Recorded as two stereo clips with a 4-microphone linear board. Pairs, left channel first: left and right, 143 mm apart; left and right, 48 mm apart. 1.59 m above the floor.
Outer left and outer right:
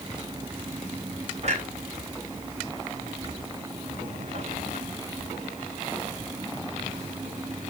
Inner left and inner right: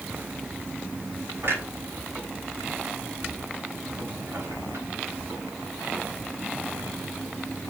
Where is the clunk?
50° right (ahead or behind), 4 m.